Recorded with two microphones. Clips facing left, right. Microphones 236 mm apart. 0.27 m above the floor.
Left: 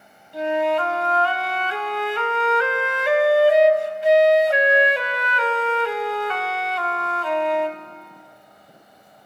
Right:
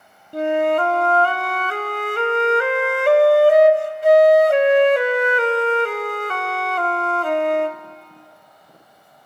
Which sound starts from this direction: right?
A flute, at 0.3 s.